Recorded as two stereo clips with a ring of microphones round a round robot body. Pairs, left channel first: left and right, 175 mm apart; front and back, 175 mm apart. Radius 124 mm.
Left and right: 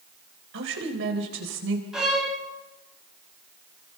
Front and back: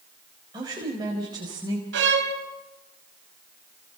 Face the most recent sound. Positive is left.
turn(degrees=180)